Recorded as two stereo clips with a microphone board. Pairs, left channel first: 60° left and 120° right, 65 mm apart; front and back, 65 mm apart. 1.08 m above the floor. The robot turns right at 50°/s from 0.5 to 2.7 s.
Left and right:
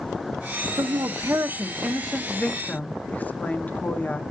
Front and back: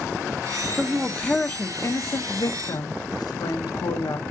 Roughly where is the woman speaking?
Right.